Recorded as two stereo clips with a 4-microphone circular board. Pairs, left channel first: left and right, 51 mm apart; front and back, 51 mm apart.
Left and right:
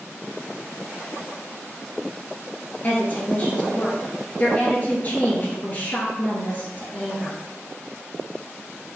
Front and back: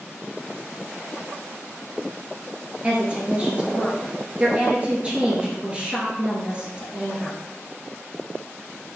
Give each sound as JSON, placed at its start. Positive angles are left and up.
{"t": 2.8, "sound": "a woman speaking", "azimuth_deg": 125, "distance_m": 1.5}